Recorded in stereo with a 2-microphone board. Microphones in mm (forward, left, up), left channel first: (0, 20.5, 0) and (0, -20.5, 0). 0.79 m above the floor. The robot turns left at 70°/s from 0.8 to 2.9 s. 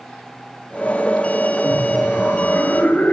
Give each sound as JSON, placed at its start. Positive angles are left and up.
{"t": 1.6, "sound": "laughter", "azimuth_deg": 150, "distance_m": 3.0}